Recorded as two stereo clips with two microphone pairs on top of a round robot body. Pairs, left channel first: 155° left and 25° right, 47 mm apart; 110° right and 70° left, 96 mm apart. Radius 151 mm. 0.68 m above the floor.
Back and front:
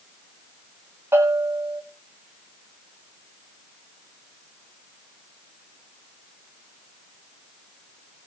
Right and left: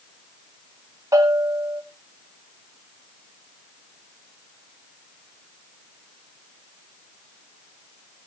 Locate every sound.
1.1 s a bell: 10° left, 8.5 m